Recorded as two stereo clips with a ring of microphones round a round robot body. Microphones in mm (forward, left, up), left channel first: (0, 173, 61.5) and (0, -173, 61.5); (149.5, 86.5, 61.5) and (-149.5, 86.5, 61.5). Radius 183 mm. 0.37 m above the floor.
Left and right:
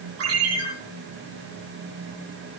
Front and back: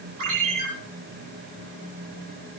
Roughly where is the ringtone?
Behind right.